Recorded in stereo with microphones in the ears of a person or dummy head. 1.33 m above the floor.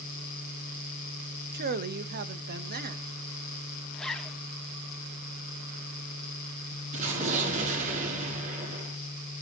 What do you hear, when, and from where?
1.5 s a man speaking: 50° right (ahead or behind), 1.1 m
3.9 s a zipper: 5° left (ahead or behind), 1.3 m
6.9 s an explosion: 35° right (ahead or behind), 4 m